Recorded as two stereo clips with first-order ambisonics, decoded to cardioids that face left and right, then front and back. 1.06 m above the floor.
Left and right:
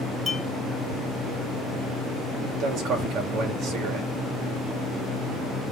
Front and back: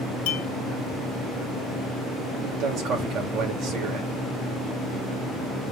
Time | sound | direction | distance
0.3 | a clink | 5° left | 1.3 m
2.4 | a man speaking | 135° right | 2.5 m